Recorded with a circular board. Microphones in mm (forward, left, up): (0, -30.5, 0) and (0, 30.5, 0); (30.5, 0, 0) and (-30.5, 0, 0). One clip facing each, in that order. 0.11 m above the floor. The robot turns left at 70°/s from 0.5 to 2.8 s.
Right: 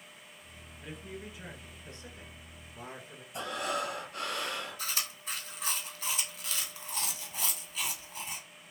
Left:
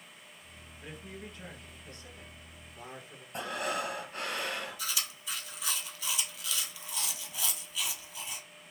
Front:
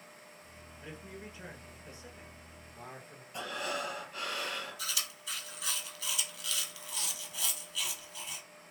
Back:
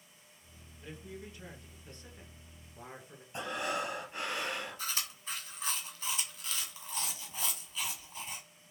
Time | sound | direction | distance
0.8 | a man speaking | 25° left | 1.6 m
3.3 | breathing | 125° left | 1.8 m
4.8 | chewing | 135° right | 1.5 m